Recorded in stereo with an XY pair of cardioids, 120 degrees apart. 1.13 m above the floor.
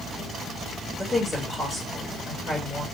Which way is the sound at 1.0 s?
15° left.